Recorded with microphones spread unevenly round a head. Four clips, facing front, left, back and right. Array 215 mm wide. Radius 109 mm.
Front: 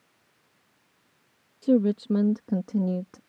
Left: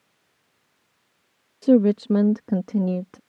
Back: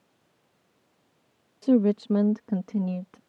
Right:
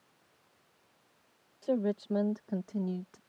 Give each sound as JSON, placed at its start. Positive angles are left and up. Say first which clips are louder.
{"t": 1.6, "sound": "a woman speaking", "louder": "left 14 dB, back 1 dB", "azimuth_deg": 110}